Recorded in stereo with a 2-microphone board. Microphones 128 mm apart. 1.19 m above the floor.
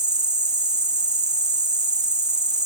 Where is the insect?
75° right (ahead or behind), 1.9 m.